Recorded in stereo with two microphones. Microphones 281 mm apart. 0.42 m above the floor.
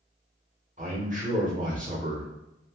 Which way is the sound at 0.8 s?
25° right (ahead or behind).